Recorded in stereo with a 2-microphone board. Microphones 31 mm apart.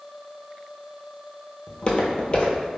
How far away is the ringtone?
No ringtone in this recording.